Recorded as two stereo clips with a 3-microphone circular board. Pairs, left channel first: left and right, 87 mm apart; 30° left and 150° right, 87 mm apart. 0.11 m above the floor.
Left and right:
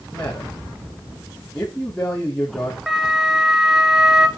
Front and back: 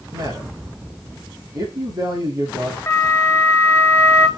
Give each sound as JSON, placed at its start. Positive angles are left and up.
{"t": 0.1, "sound": "a man speaking", "azimuth_deg": 170, "distance_m": 5.5}
{"t": 2.9, "sound": "a flute", "azimuth_deg": -10, "distance_m": 1.7}